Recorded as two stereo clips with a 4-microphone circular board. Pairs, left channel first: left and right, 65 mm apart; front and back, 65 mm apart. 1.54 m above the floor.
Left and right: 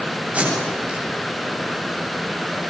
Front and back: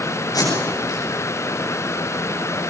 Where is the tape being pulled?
20° right, 9 m.